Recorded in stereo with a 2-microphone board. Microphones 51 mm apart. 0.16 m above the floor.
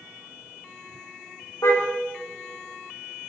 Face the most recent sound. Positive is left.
turn(degrees=80)